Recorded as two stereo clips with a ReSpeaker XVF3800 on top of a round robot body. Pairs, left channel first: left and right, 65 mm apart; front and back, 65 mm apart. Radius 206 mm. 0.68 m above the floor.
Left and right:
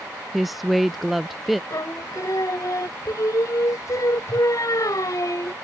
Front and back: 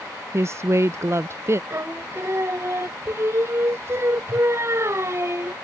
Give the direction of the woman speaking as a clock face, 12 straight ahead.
6 o'clock.